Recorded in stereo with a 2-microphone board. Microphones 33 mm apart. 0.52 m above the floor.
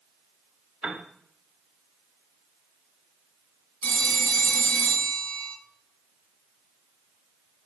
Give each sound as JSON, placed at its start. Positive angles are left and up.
{"t": 0.8, "sound": "a piano", "side_deg": -40, "distance_m": 1.0}
{"t": 3.8, "sound": "a phone ringing", "side_deg": 55, "distance_m": 1.1}